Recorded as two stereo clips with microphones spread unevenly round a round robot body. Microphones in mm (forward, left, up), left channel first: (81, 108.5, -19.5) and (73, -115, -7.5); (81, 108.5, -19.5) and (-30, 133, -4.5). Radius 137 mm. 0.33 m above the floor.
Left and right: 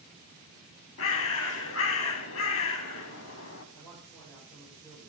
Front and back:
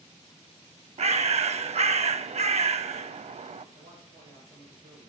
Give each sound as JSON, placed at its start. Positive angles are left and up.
{"t": 1.0, "sound": "a bird", "azimuth_deg": 135, "distance_m": 0.5}
{"t": 3.8, "sound": "a man speaking", "azimuth_deg": 165, "distance_m": 5.0}